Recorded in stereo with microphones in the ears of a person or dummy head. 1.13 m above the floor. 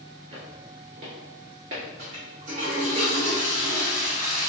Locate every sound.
0.3 s footsteps: 30° right (ahead or behind), 1.3 m; by 1.8 s 15° right (ahead or behind), 1.1 m
2.0 s a toilet flushing: 25° right (ahead or behind), 0.9 m